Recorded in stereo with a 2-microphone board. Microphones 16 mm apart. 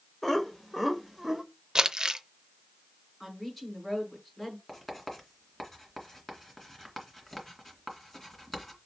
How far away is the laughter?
About 1.6 m.